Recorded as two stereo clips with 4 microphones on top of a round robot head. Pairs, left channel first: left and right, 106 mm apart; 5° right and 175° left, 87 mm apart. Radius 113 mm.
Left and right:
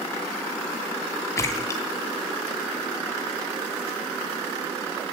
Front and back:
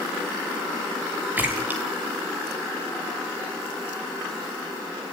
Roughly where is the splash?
Behind left.